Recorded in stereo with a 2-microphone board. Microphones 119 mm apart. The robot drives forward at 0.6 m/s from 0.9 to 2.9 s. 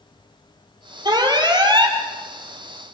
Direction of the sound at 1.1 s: 35° right (ahead or behind).